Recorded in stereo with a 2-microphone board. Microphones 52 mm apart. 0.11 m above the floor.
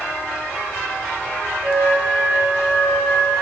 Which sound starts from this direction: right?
A flute, at 1.6 s.